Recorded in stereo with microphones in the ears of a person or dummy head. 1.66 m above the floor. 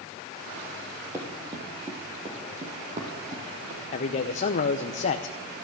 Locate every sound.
1.1 s running footsteps: 15° right (ahead or behind), 2 m; by 3.8 s 45° right (ahead or behind), 6 m
3.9 s a man speaking: 35° left (ahead or behind), 0.7 m